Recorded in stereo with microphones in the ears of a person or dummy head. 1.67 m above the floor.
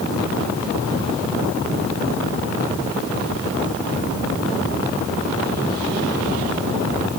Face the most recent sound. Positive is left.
No sound to turn to.